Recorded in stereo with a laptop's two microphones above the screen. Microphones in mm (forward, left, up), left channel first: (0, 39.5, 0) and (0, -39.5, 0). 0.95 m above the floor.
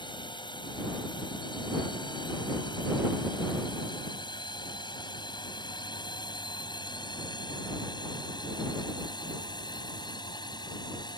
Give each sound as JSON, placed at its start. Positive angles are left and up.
{"t": 0.0, "sound": "a drone", "side_deg": 70}